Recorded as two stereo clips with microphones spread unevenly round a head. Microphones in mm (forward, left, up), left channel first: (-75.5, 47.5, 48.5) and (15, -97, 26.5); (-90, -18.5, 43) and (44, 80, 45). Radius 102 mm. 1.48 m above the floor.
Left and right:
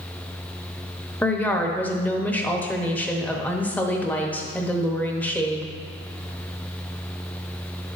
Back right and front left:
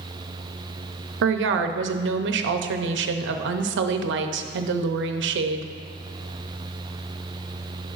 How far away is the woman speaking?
About 0.8 m.